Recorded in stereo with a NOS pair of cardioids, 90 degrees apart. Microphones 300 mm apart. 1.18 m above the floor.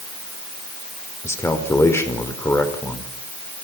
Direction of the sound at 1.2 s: 10° left.